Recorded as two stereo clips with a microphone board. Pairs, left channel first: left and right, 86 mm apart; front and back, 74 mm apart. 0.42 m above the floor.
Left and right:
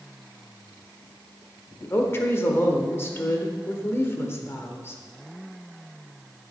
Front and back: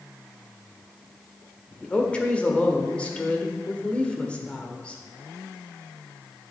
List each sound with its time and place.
1.8 s a woman speaking: 60° left, 1.3 m